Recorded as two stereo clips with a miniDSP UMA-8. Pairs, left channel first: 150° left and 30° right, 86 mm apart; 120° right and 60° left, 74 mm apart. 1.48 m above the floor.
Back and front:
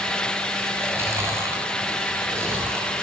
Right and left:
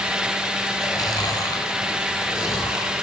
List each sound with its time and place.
0.8 s chewing: 90° right, 6.5 m